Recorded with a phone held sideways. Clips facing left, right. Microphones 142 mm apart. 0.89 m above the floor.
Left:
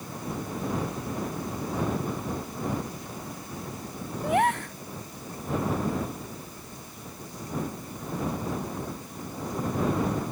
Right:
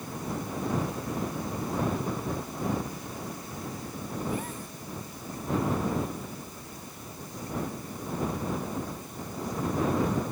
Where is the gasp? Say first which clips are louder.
Left 13 dB; 75° left (ahead or behind).